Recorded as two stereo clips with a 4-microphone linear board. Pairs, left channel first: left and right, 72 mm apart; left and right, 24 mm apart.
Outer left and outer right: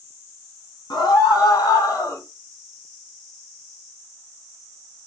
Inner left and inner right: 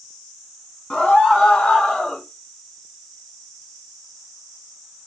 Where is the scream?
70° left (ahead or behind), 3 m; by 2.2 s 45° left (ahead or behind), 2.5 m.